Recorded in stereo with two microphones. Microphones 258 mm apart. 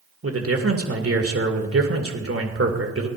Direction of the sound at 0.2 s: 55° right (ahead or behind).